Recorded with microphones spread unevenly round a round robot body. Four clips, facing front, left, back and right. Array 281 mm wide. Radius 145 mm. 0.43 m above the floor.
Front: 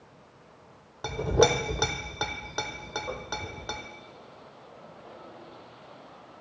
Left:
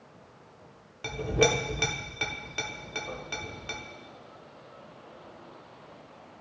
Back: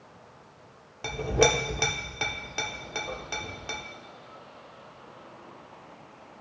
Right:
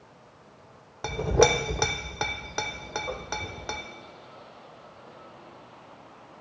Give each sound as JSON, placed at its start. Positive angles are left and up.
{"t": 1.0, "sound": "a clink", "azimuth_deg": -60, "distance_m": 1.0}